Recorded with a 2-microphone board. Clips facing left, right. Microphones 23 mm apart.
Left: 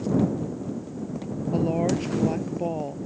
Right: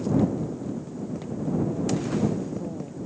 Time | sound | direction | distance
1.5 | a woman speaking | 80° left | ?